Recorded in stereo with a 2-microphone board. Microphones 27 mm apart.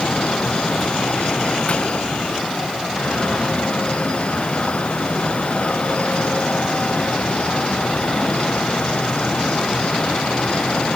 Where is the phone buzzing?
I don't hear a phone buzzing.